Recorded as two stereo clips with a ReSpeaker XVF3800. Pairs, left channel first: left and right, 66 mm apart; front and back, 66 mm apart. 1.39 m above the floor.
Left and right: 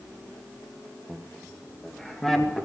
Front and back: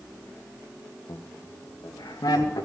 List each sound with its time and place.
1.1 s laughter: 15° right, 1.1 m; by 2.6 s 5° left, 2.5 m